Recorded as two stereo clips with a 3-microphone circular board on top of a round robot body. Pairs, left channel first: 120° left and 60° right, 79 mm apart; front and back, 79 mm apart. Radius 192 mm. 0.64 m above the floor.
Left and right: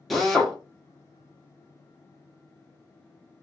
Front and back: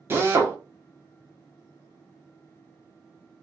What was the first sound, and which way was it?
A drill, 150° right.